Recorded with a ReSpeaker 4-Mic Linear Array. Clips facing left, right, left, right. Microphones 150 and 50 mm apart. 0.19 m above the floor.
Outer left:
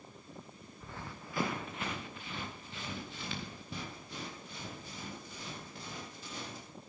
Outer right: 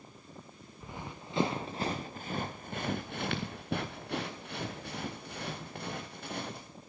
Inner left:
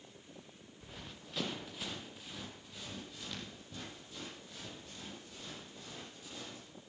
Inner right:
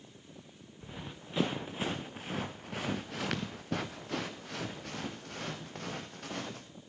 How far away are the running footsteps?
About 1.5 m.